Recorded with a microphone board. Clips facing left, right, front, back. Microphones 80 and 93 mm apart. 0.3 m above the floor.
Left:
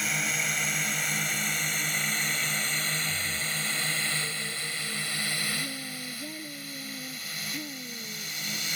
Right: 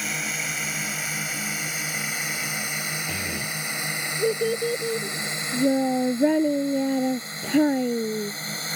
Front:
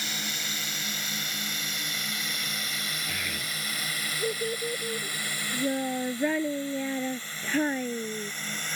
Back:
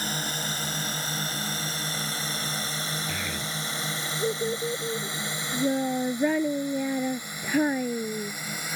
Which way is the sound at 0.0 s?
Straight behind.